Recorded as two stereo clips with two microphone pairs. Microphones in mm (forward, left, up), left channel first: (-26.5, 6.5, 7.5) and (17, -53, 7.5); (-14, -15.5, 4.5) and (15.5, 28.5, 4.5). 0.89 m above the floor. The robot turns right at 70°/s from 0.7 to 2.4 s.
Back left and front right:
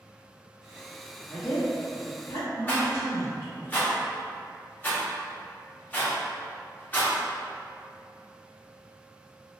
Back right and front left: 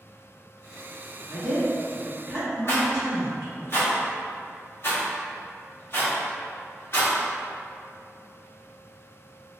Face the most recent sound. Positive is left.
turn(degrees=-170)